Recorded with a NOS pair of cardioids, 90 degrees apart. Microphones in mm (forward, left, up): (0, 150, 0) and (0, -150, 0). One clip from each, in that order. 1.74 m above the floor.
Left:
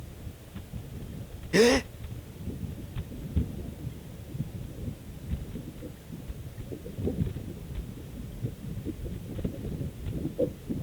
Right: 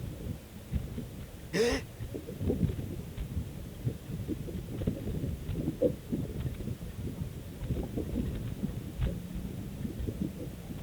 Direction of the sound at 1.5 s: 45° left.